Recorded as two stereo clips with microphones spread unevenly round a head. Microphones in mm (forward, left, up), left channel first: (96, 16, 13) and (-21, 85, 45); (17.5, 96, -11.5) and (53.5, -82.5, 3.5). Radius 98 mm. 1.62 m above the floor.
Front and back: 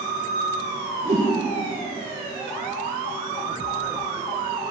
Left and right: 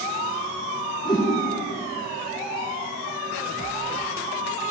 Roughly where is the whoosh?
Behind.